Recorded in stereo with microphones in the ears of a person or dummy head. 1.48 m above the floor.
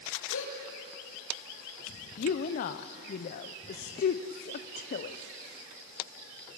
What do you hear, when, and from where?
0.3 s a gasp: 75° left (ahead or behind), 9 m
2.2 s a woman speaking: 45° left (ahead or behind), 0.6 m